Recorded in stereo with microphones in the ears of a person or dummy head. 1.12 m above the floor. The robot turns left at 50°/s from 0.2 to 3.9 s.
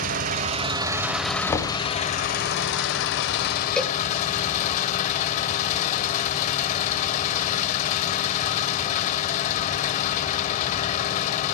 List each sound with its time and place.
0.0 s an engine running: 130° right, 1.5 m; by 11.6 s 45° left, 1.5 m
1.5 s knocking: 15° left (ahead or behind), 1.4 m; by 1.8 s 30° left (ahead or behind), 1.4 m
3.8 s a cowbell: 5° left (ahead or behind), 1.1 m; by 4.0 s centre (ahead or behind), 1.1 m